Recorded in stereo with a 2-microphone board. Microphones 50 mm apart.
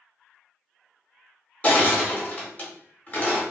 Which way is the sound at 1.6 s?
25° left (ahead or behind).